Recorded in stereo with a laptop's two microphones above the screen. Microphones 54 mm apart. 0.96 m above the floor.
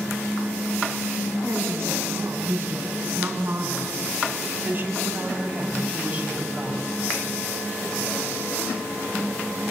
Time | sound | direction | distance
1.4 | a woman speaking | 45° right (ahead or behind) | 7.5 m